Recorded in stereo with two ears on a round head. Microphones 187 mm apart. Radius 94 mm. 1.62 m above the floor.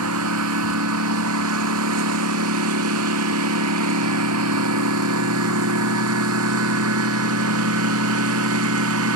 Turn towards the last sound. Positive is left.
turn(degrees=-85)